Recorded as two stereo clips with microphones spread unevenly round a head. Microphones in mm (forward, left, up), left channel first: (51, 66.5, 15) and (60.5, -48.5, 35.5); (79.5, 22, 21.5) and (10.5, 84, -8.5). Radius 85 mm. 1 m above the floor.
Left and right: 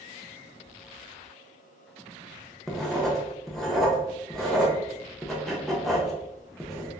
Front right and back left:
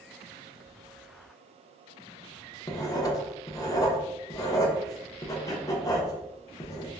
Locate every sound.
2.7 s writing: 20° left, 0.6 m